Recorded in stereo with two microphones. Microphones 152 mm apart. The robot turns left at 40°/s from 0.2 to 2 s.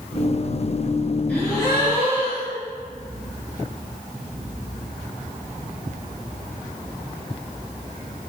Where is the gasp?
10° left (ahead or behind), 3.5 m; by 2.6 s 35° left (ahead or behind), 3.5 m.